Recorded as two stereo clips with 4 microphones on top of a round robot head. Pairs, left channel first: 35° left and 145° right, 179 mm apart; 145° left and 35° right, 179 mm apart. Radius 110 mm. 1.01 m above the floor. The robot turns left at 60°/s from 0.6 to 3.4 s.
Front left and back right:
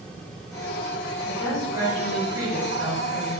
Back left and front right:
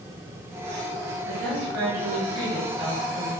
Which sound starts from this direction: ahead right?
A woman speaking, at 1.3 s.